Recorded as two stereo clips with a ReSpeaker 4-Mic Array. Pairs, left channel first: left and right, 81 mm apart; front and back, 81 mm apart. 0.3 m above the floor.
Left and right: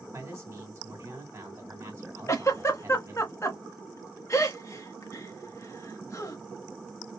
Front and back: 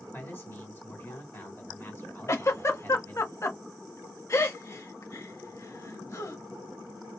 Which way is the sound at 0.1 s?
45° right.